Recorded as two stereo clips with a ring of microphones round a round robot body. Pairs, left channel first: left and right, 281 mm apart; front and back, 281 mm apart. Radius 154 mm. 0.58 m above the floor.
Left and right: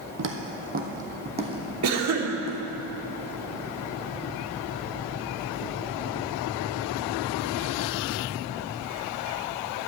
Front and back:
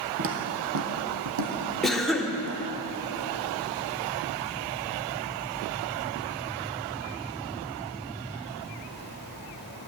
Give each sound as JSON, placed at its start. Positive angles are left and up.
{"t": 0.2, "sound": "footsteps", "azimuth_deg": -135, "distance_m": 1.5}
{"t": 1.8, "sound": "a cough", "azimuth_deg": -90, "distance_m": 1.6}